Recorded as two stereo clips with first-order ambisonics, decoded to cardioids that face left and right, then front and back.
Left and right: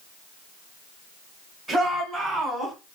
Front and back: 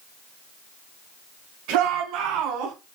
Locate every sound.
1.7 s a shout: 175° left, 5 m; by 2.8 s 170° left, 4.5 m